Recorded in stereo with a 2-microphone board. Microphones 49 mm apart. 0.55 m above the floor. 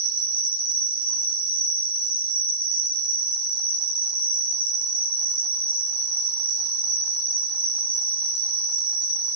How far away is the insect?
About 1.6 m.